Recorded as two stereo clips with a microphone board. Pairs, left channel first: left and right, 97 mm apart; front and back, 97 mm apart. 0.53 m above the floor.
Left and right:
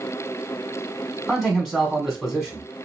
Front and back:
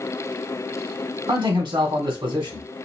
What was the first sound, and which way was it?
A man speaking, 170° left.